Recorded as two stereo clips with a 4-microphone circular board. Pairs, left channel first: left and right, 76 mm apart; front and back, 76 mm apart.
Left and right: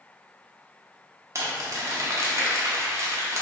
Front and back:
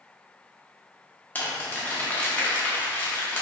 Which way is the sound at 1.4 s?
60° right.